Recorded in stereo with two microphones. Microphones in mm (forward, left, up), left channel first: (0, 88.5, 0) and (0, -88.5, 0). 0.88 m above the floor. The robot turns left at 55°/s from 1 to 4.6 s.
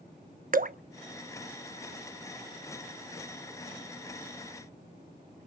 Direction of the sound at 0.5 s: 50° right (ahead or behind).